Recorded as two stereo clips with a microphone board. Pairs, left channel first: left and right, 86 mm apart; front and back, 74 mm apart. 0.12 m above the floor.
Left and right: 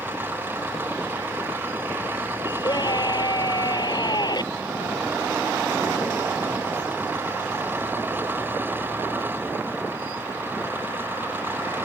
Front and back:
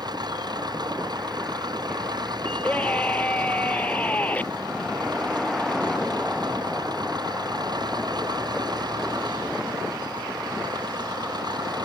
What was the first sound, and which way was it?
An engine running, 160° right.